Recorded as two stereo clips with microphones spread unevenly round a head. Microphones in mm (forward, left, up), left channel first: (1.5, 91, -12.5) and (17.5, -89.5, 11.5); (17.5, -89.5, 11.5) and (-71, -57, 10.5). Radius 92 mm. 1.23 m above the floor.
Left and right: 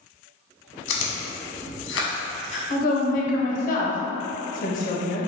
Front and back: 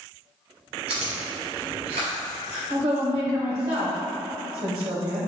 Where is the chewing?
115° left, 0.8 m.